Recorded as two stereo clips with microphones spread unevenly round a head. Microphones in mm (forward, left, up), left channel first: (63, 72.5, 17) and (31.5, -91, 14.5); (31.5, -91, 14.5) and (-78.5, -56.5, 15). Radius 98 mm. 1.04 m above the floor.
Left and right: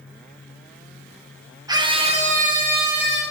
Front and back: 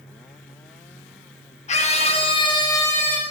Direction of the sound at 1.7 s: 35° right.